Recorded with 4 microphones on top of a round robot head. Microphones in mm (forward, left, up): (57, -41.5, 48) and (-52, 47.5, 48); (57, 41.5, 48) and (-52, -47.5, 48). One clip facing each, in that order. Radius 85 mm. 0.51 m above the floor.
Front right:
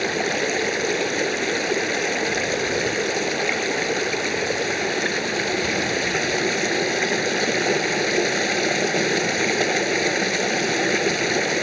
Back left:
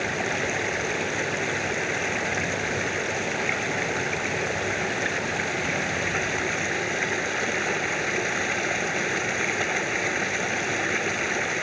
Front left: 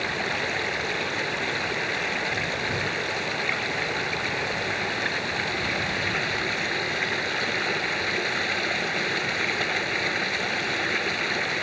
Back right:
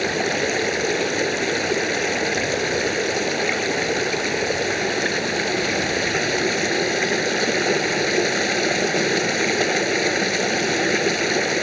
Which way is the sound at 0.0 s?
95° right.